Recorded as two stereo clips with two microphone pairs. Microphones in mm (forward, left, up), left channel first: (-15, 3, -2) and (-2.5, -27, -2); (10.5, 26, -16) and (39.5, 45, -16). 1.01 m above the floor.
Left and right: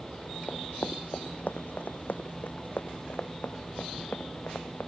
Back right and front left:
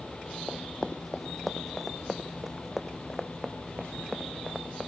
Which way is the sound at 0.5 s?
135° left.